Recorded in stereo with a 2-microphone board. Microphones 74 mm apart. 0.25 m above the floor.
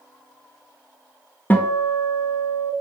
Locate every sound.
1.5 s a guitar: 25° left (ahead or behind), 0.5 m